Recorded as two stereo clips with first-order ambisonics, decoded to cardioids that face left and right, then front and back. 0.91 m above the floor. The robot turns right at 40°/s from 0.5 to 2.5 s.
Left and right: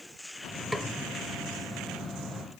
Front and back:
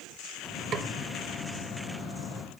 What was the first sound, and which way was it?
A snare drum, 170° left.